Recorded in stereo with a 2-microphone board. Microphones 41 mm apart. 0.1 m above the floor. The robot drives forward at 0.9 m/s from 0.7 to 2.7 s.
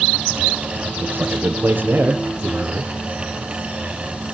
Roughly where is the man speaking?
Right.